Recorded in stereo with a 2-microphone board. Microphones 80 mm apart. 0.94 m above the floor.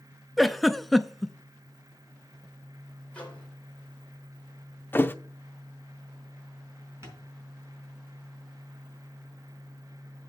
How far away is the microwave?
About 3.5 m.